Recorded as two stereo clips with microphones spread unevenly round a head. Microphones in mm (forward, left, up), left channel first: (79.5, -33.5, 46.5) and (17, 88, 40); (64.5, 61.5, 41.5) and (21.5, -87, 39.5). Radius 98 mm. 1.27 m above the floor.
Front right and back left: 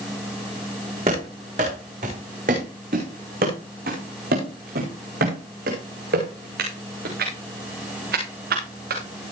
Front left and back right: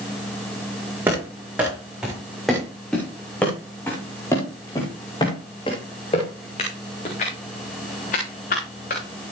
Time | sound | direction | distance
1.1 | running footsteps | 175° left | 6.5 m